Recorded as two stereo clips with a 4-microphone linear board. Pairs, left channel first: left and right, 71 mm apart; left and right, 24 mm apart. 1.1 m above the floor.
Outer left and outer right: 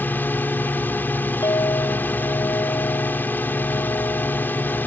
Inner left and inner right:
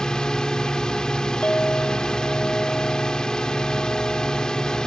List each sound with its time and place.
0.0 s a drone: 30° left (ahead or behind)
1.4 s a clink: 80° left